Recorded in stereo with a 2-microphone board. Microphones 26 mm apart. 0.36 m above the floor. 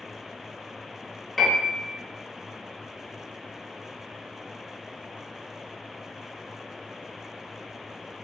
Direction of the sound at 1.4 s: 10° left (ahead or behind).